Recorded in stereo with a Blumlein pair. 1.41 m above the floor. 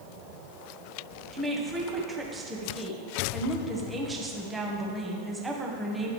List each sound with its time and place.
1.3 s a woman speaking: 10° right, 1.0 m